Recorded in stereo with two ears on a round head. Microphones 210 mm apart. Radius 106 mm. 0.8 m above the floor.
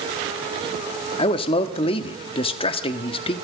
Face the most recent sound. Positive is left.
turn(degrees=25)  # may be behind; listen again after turning